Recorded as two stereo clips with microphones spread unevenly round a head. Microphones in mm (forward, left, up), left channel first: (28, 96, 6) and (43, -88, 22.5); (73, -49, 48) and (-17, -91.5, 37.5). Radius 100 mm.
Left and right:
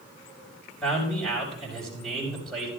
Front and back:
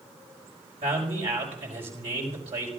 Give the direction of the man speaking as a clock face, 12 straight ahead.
6 o'clock.